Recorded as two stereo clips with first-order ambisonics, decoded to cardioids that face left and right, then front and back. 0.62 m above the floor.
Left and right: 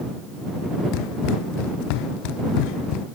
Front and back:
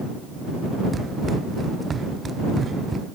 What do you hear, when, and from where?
0.9 s running footsteps: 105° left; by 3.1 s 110° left